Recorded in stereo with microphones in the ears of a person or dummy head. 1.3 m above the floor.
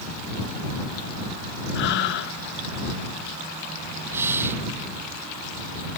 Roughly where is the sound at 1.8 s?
Left.